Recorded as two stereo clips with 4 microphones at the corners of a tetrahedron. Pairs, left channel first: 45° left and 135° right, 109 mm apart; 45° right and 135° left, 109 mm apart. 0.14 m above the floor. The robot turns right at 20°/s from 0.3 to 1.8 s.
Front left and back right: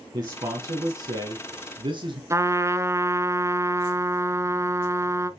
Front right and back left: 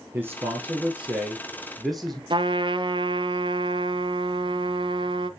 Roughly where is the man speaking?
Behind.